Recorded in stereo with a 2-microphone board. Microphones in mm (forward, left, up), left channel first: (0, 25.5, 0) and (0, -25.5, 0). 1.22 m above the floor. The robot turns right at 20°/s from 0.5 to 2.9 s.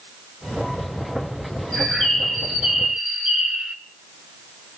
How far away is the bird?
About 1.7 m.